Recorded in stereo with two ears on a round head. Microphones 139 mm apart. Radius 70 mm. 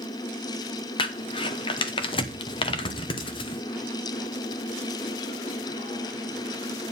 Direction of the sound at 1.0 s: 35° left (ahead or behind).